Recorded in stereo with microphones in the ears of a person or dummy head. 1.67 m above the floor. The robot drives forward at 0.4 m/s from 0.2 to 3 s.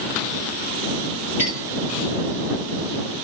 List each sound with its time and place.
1.4 s a clink: 15° right (ahead or behind), 1.6 m